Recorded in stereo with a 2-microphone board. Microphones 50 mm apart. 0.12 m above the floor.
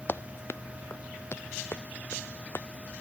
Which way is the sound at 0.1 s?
50° left (ahead or behind).